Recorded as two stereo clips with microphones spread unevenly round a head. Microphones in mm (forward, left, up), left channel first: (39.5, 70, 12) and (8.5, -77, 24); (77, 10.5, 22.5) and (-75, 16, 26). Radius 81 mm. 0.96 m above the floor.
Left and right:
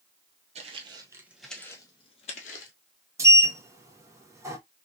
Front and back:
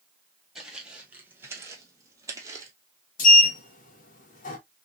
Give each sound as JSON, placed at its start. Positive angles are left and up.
{"t": 0.6, "sound": "footsteps", "azimuth_deg": -95, "distance_m": 1.2}
{"t": 3.2, "sound": "a sliding door", "azimuth_deg": -30, "distance_m": 1.5}